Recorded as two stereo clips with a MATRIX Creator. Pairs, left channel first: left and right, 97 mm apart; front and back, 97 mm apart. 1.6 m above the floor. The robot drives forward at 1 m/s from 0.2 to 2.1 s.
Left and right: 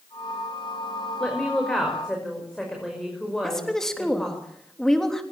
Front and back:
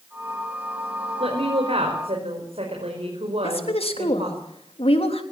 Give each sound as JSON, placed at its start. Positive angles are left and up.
{"t": 1.2, "sound": "a woman speaking", "azimuth_deg": 175, "distance_m": 4.5}
{"t": 3.4, "sound": "a woman speaking", "azimuth_deg": 5, "distance_m": 3.5}